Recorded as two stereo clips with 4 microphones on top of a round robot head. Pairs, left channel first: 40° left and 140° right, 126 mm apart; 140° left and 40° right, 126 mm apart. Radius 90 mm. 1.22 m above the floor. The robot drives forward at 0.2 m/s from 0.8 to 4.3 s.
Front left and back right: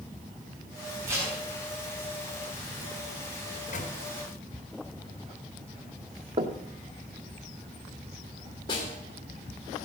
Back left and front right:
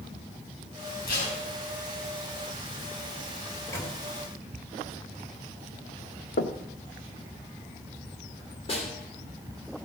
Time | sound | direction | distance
1.1 | tape being pulled | 150° left | 5.5 m
3.5 | a microwave | 70° left | 2.5 m
6.4 | knocking | 170° left | 1.1 m
8.7 | a snare drum | 95° left | 3 m